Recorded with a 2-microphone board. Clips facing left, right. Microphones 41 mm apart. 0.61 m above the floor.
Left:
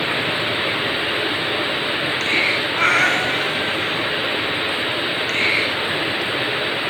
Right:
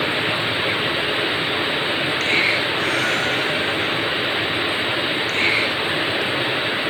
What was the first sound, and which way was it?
A cat meowing, 65° left (ahead or behind).